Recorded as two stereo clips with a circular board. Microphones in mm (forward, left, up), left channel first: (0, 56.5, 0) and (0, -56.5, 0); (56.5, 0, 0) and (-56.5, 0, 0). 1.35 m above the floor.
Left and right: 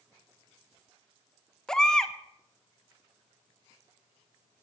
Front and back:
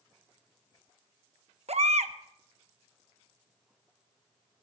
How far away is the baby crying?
About 0.8 m.